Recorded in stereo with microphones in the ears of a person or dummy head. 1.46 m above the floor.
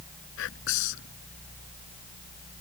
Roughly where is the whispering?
Left.